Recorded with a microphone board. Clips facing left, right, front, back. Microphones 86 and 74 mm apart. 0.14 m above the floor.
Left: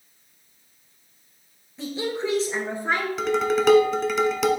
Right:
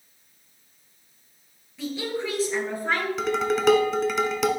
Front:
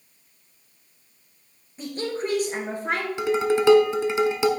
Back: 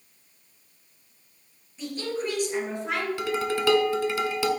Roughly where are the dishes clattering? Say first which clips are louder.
Left 3 dB, front 9 dB; ahead.